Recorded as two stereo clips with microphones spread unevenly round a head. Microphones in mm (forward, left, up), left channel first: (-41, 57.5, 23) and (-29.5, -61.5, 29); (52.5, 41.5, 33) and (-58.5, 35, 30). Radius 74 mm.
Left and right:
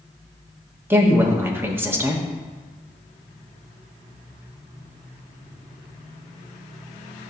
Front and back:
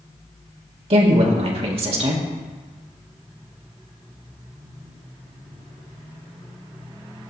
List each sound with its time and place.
0.9 s a woman speaking: 155° right, 1.4 m